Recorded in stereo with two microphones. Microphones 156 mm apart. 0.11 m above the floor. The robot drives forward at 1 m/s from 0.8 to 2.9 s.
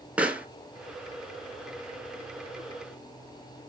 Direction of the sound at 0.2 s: 5° right (ahead or behind).